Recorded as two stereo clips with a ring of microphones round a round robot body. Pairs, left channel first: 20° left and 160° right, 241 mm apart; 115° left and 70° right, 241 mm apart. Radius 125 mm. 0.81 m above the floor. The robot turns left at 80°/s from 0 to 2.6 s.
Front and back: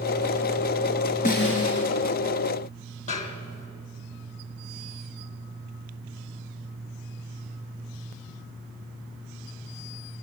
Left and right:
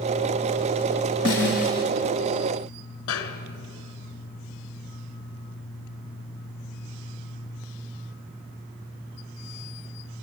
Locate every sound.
1.2 s a snare drum: 85° left, 3.5 m; by 1.9 s 35° left, 3.5 m
3.1 s a snare drum: 80° left, 1.3 m